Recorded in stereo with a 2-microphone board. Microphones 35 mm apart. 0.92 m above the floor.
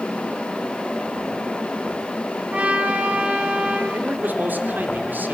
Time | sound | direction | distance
2.5 | a trumpet | 40° right (ahead or behind) | 5.5 m
3.9 | a man speaking | 60° right (ahead or behind) | 3.5 m